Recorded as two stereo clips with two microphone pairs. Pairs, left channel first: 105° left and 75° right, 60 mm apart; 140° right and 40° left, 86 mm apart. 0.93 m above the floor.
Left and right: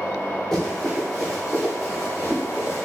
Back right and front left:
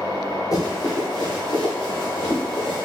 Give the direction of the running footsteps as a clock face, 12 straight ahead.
6 o'clock.